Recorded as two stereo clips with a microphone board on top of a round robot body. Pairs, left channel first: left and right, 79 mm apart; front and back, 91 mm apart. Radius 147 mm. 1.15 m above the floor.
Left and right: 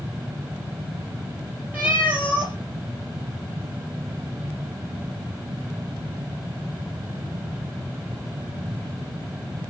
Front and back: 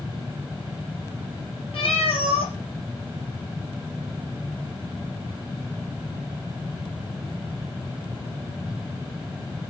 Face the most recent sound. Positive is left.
turn(degrees=-20)